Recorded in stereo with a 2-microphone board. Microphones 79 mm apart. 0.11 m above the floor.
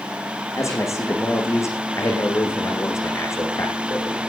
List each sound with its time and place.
0.6 s a man speaking: 40° left (ahead or behind), 6.5 m